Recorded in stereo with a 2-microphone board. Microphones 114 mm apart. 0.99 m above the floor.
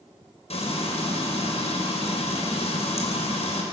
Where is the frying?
65° left (ahead or behind), 5.5 m.